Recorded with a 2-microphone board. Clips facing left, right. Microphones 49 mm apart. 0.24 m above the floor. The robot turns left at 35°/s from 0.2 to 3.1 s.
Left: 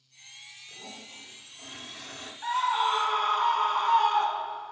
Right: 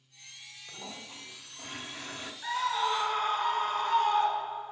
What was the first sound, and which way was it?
A toilet flushing, 115° right.